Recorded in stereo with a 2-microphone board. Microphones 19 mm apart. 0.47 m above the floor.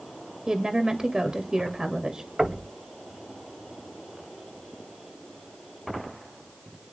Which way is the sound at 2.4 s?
40° right (ahead or behind).